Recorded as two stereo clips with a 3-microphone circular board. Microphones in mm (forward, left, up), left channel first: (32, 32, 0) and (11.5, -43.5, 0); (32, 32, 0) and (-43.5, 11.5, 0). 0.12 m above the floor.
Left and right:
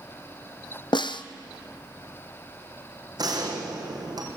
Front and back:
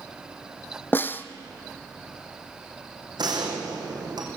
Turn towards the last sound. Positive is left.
turn(degrees=-140)